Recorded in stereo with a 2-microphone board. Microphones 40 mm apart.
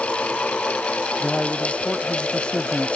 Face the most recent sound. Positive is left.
turn(degrees=20)  # may be behind; listen again after turning